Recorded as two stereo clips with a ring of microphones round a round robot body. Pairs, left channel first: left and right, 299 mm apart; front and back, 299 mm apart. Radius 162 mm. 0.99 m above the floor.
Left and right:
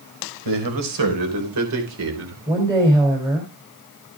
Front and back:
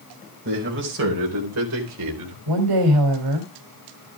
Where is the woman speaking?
170° right, 3 m.